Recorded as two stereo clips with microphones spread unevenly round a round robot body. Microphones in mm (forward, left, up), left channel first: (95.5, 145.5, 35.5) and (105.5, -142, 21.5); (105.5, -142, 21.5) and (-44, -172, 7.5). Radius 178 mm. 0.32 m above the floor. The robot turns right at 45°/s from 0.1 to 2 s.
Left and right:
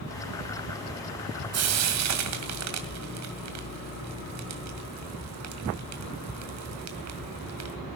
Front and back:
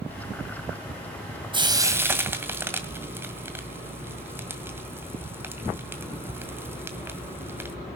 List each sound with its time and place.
1.5 s frying: 120° right, 2 m; by 7.8 s 95° right, 2 m